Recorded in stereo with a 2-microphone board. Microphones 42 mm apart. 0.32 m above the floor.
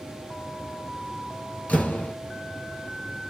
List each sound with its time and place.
1.7 s a door slam: 35° left (ahead or behind), 2.5 m